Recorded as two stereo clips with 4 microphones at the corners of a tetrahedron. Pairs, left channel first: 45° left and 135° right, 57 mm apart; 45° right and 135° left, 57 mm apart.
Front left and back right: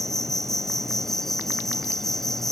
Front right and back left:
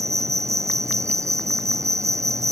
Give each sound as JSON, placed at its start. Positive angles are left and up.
{"t": 0.0, "sound": "an insect", "azimuth_deg": 130}